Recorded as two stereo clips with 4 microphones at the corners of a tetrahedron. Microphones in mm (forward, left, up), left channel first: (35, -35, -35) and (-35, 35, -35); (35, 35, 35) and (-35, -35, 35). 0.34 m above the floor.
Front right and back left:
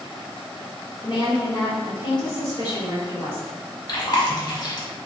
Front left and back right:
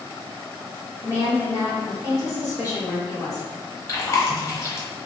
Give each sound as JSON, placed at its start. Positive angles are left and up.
{"t": 1.0, "sound": "a woman speaking", "azimuth_deg": 0, "distance_m": 1.9}
{"t": 3.9, "sound": "chewing", "azimuth_deg": -10, "distance_m": 0.8}